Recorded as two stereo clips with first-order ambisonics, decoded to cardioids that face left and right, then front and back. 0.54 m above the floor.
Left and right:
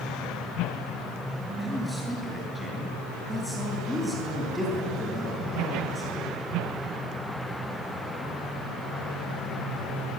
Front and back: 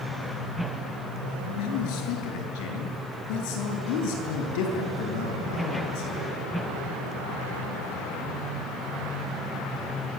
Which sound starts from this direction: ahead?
A man speaking, at 1.5 s.